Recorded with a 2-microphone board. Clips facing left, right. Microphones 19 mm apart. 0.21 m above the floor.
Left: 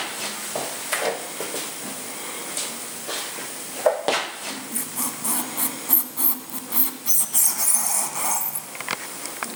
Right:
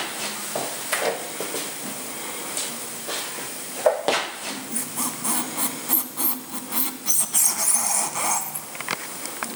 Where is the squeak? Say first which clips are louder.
Right 1 dB; 10° right (ahead or behind), 0.8 m.